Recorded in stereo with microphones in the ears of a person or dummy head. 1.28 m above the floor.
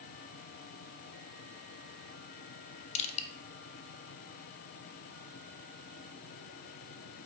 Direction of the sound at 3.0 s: 35° left (ahead or behind).